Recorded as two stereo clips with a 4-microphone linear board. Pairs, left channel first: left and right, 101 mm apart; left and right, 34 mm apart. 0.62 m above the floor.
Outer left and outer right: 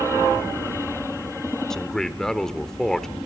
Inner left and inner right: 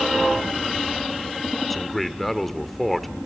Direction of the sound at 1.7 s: 5° left (ahead or behind).